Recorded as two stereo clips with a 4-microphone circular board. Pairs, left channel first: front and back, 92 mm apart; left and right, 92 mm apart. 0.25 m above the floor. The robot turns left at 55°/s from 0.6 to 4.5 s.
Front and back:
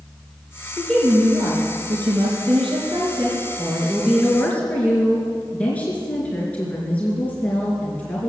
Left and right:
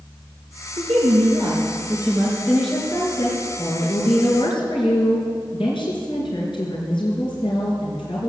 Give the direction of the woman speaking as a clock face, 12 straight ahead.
3 o'clock.